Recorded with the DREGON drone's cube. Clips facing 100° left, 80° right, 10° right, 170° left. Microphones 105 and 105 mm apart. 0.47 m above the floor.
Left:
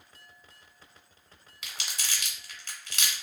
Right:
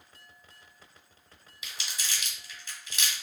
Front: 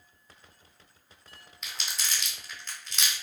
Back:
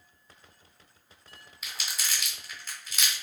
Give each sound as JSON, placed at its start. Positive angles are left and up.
{"t": 1.6, "sound": "crumpling", "azimuth_deg": 85, "distance_m": 1.0}